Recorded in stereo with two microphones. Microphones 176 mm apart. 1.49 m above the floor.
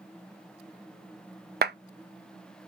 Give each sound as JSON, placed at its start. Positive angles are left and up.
{"t": 1.6, "sound": "a clap", "side_deg": -65, "distance_m": 0.5}